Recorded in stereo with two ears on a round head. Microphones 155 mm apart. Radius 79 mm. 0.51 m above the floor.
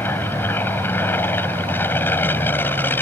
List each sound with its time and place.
0.0 s an aircraft: 10° left (ahead or behind)